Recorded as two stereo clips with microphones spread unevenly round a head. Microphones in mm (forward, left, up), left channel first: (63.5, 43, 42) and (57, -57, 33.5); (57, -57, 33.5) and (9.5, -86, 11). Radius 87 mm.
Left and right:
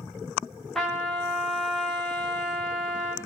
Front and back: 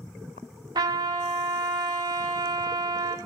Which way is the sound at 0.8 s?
170° left.